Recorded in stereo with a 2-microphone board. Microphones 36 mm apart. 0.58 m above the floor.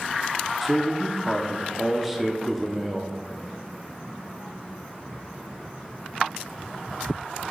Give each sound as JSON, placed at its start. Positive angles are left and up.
{"t": 0.6, "sound": "a man speaking", "side_deg": -5, "distance_m": 0.7}